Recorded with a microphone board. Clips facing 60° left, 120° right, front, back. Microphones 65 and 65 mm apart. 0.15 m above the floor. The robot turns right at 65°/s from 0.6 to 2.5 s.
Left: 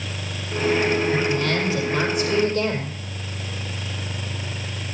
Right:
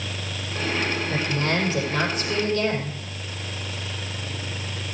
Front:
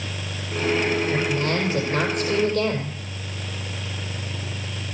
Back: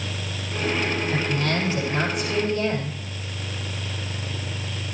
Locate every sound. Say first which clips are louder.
1.1 s a woman speaking: left 3 dB, front 1 dB; 75° right, 5.5 m; by 3.0 s 15° left, 5.5 m